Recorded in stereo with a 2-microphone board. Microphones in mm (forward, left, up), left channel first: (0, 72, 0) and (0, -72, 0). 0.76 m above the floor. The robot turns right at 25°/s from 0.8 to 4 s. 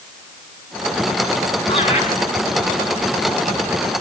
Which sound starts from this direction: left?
Laughter, at 1.7 s.